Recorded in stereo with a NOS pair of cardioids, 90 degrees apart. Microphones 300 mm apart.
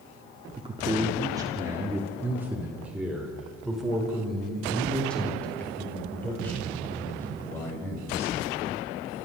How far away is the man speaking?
About 3 m.